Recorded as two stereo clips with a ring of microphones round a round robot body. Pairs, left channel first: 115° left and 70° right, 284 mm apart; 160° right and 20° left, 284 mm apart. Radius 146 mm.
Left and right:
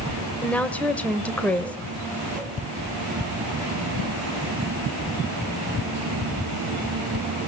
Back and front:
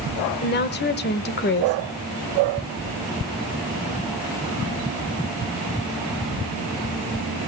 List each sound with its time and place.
0.4 s a woman speaking: 165° right, 1.0 m